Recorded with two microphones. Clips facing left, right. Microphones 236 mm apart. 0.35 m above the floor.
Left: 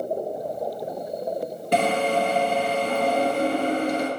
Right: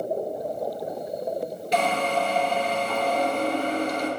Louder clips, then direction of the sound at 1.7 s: Left 3 dB; 60° left (ahead or behind).